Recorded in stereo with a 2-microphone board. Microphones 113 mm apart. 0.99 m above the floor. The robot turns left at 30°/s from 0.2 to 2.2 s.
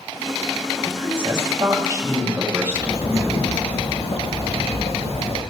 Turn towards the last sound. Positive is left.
turn(degrees=75)  # may be behind; listen again after turning